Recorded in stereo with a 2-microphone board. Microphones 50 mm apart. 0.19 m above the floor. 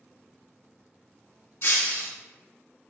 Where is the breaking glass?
50° left (ahead or behind), 1.0 m.